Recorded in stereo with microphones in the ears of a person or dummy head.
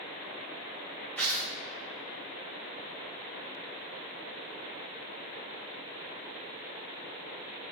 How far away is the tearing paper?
About 1.0 m.